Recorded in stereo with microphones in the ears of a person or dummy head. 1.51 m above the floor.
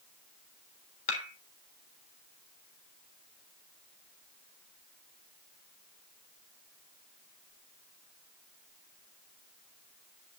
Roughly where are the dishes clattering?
Left.